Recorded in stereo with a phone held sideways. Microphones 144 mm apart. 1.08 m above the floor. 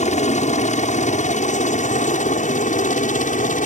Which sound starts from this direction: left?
A helicopter, at 0.0 s.